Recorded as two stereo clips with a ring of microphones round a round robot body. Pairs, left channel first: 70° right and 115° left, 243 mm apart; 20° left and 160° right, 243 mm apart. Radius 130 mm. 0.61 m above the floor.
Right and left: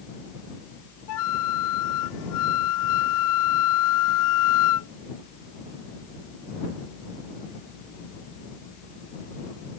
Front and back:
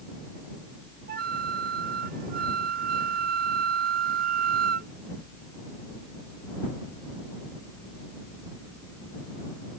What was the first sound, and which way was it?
A flute, 100° right.